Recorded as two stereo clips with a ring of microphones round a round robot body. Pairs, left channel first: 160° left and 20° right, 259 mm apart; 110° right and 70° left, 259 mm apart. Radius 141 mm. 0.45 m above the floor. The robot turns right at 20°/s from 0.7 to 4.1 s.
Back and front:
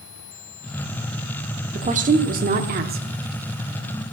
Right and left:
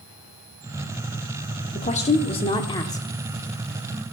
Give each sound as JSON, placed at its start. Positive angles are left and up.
{"t": 1.7, "sound": "a woman speaking", "azimuth_deg": -70, "distance_m": 0.9}